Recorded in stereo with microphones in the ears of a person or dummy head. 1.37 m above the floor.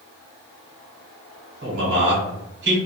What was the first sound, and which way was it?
A man speaking, 60° right (ahead or behind).